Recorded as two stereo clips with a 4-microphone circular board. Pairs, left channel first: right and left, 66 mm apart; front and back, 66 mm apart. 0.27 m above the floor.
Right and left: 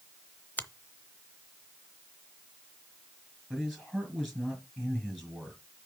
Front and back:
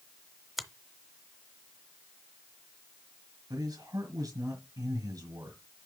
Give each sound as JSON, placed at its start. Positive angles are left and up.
{"t": 0.6, "sound": "a finger snap", "azimuth_deg": -100, "distance_m": 0.8}
{"t": 3.5, "sound": "a man speaking", "azimuth_deg": 175, "distance_m": 4.0}